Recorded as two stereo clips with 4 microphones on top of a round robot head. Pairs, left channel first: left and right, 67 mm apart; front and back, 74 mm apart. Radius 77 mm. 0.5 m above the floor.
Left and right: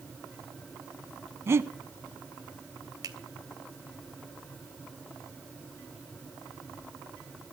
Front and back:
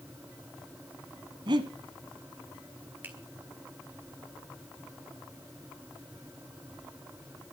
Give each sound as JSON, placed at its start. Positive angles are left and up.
{"t": 1.5, "sound": "breathing", "azimuth_deg": -145, "distance_m": 1.1}
{"t": 3.0, "sound": "a finger snap", "azimuth_deg": -115, "distance_m": 3.0}